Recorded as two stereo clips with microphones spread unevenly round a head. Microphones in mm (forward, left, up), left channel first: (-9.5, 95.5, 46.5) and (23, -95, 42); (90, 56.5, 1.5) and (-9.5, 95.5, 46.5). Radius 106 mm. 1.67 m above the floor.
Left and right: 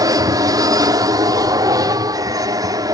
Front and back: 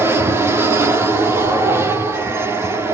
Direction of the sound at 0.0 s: 100° right.